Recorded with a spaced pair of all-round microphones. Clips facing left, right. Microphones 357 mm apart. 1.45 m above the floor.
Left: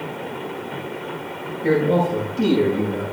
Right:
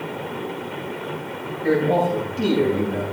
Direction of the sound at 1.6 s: 10° left (ahead or behind).